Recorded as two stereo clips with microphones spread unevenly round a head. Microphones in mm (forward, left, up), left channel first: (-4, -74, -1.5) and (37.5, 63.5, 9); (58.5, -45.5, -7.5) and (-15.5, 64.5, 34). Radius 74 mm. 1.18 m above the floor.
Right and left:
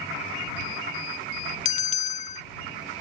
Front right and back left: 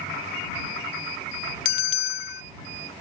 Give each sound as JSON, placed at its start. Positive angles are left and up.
{"t": 1.6, "sound": "a bell", "azimuth_deg": -75}